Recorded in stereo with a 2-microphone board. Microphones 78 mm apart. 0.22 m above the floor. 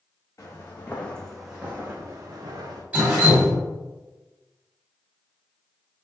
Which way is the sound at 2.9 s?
15° right (ahead or behind).